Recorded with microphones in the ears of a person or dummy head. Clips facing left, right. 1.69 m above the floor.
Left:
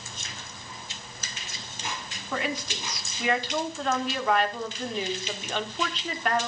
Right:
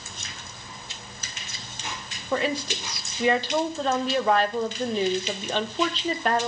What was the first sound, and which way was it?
A woman speaking, 25° right (ahead or behind).